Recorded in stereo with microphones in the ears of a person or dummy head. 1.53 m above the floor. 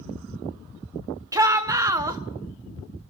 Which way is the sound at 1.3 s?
20° right (ahead or behind).